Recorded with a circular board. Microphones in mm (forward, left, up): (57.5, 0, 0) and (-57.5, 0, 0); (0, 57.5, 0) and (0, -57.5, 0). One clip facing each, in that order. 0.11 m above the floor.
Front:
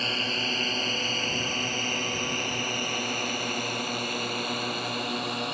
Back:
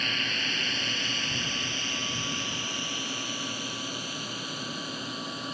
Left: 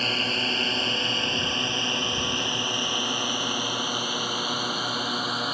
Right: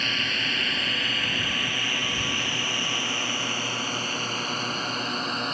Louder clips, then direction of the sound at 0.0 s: Front 3 dB, left 3 dB; 45° left.